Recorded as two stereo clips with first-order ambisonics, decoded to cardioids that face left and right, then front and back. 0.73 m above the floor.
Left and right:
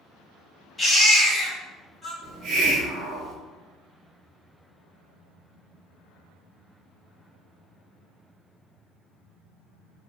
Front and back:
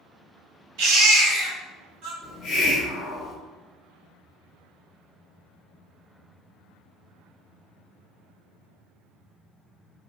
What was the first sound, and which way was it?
A baby crying, 170° left.